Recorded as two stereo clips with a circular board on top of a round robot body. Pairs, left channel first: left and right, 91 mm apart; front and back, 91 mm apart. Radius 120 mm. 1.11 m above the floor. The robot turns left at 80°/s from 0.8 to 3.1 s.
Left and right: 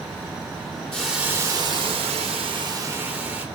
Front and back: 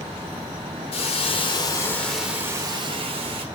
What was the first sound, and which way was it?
A hiss, 5° left.